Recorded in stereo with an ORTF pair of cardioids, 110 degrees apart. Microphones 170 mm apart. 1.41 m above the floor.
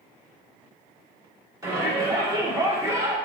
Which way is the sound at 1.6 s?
20° right.